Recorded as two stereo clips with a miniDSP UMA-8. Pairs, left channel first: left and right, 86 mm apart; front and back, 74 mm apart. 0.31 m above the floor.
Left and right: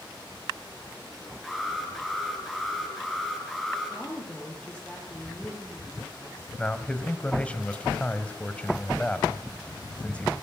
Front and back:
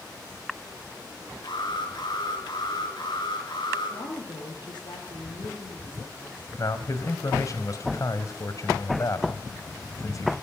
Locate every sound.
1.4 s an alarm: straight ahead, 4 m
3.9 s a woman speaking: 10° left, 8.5 m
6.6 s a man speaking: 20° left, 1.7 m